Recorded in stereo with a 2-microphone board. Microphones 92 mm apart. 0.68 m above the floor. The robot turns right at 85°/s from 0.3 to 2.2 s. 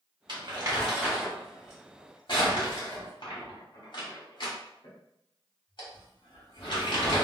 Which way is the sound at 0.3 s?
60° right (ahead or behind).